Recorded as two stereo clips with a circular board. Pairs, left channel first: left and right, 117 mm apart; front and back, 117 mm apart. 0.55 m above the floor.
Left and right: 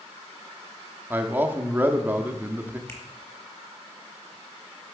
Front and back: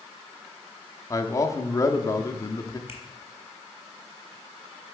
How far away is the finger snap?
About 1.6 m.